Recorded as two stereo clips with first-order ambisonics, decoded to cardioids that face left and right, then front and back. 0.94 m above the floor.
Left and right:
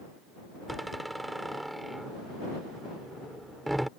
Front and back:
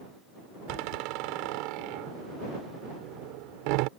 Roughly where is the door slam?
Behind.